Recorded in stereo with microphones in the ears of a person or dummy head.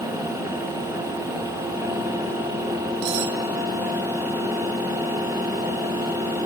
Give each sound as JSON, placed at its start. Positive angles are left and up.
{"t": 3.0, "sound": "cutlery clinking", "side_deg": -65, "distance_m": 1.6}